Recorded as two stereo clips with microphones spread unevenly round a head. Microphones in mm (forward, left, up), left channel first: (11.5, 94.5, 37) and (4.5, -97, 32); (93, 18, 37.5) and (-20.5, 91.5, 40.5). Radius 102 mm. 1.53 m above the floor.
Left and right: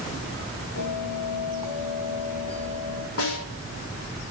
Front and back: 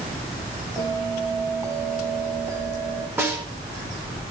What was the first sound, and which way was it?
A bell, 80° left.